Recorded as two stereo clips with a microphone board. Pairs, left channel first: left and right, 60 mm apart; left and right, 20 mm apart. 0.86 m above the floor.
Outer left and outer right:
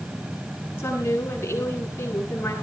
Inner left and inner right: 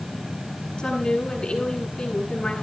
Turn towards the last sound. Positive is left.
turn(degrees=45)  # may be behind; listen again after turning